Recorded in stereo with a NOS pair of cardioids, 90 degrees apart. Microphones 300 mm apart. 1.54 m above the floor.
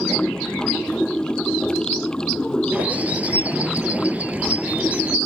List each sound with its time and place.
0.0 s running water: 5° left
2.7 s a bird: 5° right